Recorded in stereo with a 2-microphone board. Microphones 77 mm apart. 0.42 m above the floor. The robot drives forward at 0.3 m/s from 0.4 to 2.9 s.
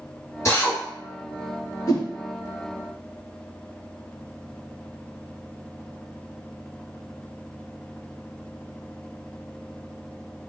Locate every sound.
0.5 s a drill: 35° left (ahead or behind), 1.4 m; by 0.8 s 40° left (ahead or behind), 1.3 m
1.9 s a whoosh: 50° left (ahead or behind), 1.0 m; by 2.1 s 55° left (ahead or behind), 1.0 m